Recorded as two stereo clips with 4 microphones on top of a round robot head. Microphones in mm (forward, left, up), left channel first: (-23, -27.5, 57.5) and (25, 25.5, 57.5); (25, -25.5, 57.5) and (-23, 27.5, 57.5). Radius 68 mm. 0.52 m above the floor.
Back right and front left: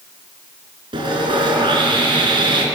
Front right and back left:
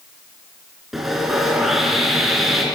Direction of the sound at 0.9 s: 45° left.